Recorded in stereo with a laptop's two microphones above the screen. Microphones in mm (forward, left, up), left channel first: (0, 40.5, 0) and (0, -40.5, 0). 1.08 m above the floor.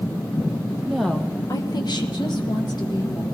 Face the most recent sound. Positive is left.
turn(degrees=60)  # may be behind; listen again after turning